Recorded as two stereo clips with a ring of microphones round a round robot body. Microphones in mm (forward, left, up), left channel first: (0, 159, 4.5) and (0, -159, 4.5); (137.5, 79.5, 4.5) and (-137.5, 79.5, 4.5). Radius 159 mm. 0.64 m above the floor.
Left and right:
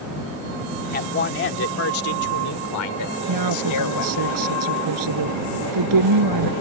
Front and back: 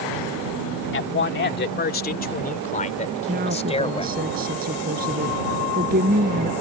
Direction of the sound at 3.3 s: 115° right.